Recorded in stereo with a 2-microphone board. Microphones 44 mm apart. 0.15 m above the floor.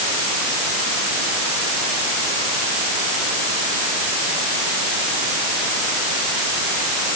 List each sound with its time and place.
Only background noise.